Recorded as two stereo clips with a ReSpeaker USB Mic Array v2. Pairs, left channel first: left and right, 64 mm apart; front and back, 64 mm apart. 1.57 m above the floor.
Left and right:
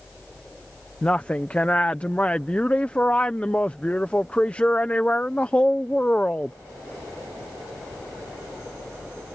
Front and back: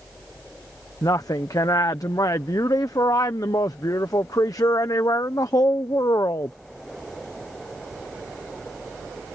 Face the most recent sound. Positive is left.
turn(degrees=20)